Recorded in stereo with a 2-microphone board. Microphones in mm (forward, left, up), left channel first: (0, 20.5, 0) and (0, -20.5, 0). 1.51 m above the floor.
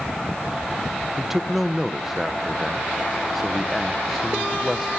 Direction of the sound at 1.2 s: 10° right (ahead or behind).